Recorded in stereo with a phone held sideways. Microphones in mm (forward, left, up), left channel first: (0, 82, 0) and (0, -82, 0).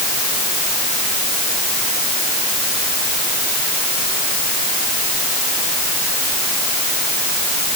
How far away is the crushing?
I don't hear crushing.